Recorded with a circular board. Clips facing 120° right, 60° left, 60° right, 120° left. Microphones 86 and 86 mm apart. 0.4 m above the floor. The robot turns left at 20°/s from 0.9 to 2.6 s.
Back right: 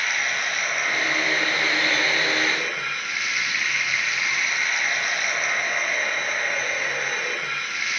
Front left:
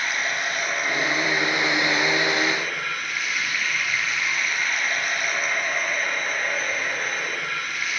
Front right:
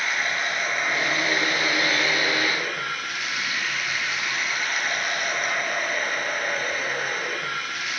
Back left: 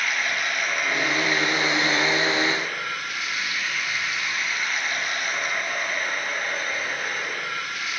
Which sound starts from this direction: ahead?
Running water, at 0.0 s.